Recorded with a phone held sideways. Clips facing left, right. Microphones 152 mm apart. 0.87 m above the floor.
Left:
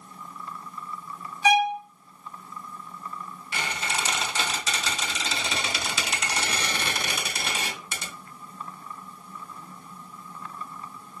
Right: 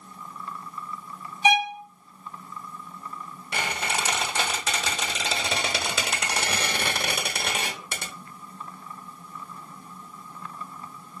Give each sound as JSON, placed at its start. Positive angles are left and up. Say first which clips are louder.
{"t": 1.4, "sound": "a violin", "louder": "left 2 dB", "side_deg": -20, "distance_m": 0.7}
{"t": 3.5, "sound": "a squeak", "louder": "right 2 dB", "side_deg": -60, "distance_m": 1.0}